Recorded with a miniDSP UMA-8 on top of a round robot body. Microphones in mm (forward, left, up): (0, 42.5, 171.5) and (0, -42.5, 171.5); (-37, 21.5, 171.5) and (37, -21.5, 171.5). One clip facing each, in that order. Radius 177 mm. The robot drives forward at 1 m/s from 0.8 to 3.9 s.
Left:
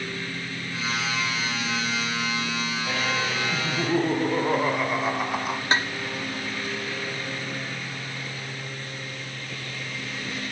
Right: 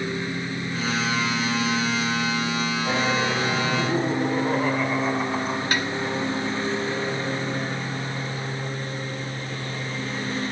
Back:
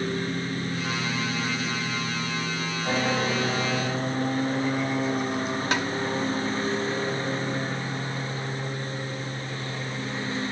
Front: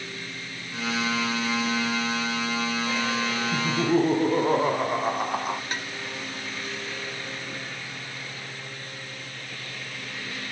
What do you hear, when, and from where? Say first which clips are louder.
0.0 s a lawn mower: right 5 dB, back 10 dB; 160° right; by 10.5 s 150° right
3.5 s laughter: right 2 dB, front 4 dB; 10° left
5.7 s tapping: left 4 dB, back 8 dB; 155° left